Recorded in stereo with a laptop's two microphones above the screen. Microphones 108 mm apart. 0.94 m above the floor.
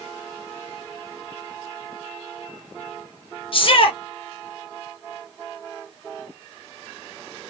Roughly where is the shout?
Left.